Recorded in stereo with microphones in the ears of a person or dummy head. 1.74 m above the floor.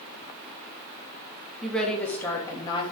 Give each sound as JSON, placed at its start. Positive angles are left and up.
{"t": 1.6, "sound": "a woman speaking", "side_deg": 0, "distance_m": 3.0}